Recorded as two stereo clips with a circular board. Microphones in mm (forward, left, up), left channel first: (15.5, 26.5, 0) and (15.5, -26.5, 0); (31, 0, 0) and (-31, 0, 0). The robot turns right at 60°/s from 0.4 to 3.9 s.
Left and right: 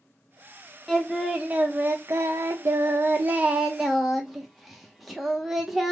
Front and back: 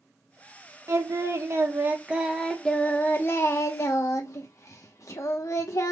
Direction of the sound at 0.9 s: 175° left.